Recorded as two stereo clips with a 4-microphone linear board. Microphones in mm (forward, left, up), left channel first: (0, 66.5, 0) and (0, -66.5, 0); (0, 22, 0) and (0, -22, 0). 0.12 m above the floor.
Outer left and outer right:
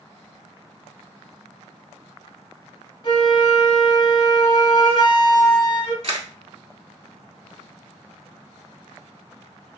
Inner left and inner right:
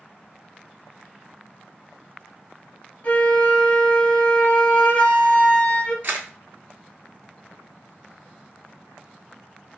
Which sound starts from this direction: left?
A flute, at 3.0 s.